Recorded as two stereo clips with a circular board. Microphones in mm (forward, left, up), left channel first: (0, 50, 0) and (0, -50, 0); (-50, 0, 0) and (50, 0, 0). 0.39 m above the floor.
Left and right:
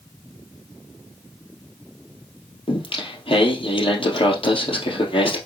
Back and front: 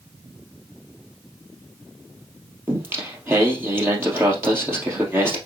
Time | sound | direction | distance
2.7 | singing | 65° left | 2 m